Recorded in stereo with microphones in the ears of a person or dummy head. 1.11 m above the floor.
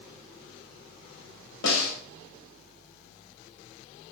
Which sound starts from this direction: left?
A snare drum, at 1.6 s.